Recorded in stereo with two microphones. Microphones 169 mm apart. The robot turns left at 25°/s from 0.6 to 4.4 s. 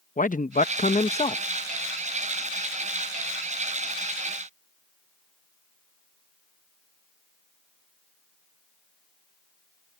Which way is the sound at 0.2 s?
50° left (ahead or behind).